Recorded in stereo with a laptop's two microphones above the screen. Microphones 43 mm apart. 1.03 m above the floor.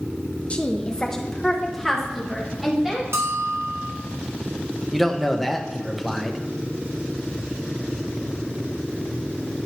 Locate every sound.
0.5 s a woman speaking: 30° left (ahead or behind), 0.6 m; by 3.0 s 10° right (ahead or behind), 2 m
3.1 s a bell: 80° right, 1.1 m
4.9 s a man speaking: centre (ahead or behind), 0.6 m